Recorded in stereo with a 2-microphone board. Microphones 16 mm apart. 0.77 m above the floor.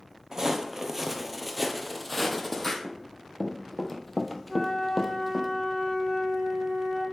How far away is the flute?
About 2.5 m.